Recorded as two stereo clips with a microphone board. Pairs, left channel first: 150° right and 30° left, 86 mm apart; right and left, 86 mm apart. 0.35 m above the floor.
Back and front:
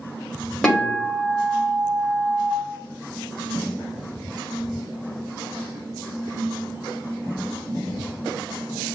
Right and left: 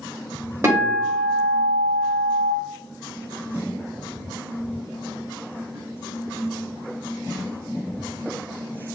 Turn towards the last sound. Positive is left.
turn(degrees=135)